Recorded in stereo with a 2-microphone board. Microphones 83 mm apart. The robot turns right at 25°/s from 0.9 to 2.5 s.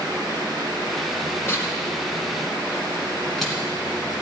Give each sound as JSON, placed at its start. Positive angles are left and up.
{"t": 1.4, "sound": "tearing paper", "side_deg": 25, "distance_m": 3.0}